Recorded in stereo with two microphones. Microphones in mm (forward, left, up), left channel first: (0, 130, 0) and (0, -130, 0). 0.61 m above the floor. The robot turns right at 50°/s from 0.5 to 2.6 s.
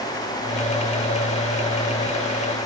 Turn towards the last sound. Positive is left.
No sound to turn to.